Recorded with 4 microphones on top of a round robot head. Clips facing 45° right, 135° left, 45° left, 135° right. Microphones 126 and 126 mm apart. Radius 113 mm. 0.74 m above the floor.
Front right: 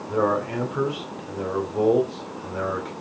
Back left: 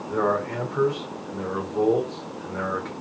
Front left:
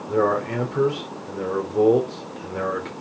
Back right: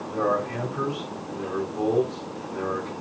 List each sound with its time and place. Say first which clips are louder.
0.1 s a man speaking: front right 1 dB, front left 4 dB; 35° left, 2.5 m